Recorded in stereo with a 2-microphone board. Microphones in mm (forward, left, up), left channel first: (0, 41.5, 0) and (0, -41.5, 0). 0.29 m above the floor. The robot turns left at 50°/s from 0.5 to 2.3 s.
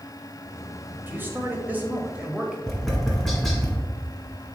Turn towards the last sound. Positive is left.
turn(degrees=5)  # may be behind; listen again after turning